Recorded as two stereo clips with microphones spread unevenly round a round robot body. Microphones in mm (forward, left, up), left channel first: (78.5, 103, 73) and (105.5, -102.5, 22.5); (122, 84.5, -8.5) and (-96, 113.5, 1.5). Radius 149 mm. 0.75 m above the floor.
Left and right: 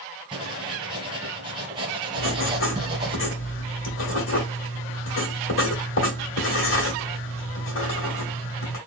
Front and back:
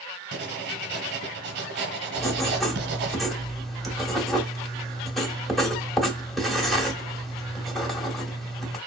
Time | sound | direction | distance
0.3 | writing | 165° right | 0.8 m
2.2 | writing | 80° left | 1.9 m